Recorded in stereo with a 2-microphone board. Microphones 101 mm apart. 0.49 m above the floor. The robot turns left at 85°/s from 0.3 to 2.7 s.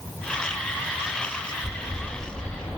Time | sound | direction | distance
1.6 | a bird | 150° right | 1.2 m